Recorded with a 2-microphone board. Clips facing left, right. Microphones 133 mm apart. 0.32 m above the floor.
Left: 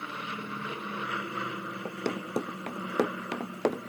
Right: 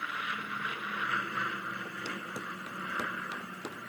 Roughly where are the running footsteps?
Left.